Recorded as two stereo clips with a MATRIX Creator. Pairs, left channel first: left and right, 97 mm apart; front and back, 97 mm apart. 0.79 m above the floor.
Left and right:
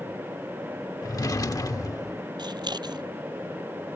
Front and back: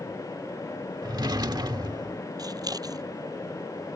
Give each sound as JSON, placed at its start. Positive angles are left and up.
{"t": 1.0, "sound": "a drawer", "azimuth_deg": 140}
{"t": 2.4, "sound": "scissors", "azimuth_deg": -130}